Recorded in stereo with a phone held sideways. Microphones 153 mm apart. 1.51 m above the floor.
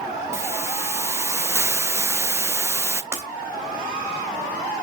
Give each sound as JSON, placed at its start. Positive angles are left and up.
{"t": 0.3, "sound": "a hiss", "side_deg": -15, "distance_m": 0.6}
{"t": 3.1, "sound": "breaking glass", "side_deg": -15, "distance_m": 3.5}